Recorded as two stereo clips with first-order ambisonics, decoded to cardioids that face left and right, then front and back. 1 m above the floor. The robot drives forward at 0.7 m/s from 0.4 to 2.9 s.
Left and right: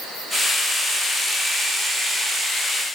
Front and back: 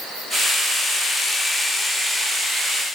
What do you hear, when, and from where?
Only background noise.